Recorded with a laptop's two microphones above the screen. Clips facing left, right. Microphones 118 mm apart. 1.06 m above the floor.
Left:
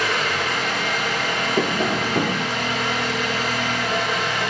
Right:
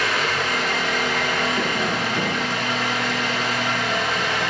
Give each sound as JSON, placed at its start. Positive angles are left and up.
{"t": 0.0, "sound": "an engine running", "side_deg": 5, "distance_m": 3.0}
{"t": 1.6, "sound": "tapping", "side_deg": 45, "distance_m": 0.7}